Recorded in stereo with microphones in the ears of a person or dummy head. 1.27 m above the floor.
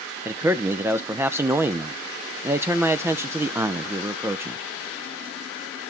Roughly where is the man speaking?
Centre.